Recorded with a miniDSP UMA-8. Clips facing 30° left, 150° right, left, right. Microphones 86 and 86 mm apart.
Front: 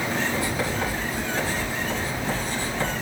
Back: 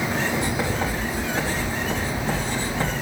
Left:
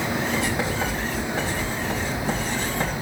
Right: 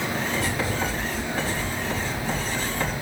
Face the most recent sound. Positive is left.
turn(degrees=145)